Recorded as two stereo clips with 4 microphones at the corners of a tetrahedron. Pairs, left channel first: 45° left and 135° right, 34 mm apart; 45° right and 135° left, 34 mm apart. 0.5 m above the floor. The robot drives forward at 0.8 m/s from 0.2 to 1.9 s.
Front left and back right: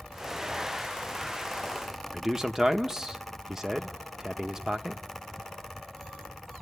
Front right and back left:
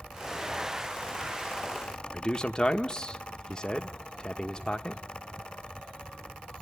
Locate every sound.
2.1 s a man speaking: 80° right, 0.8 m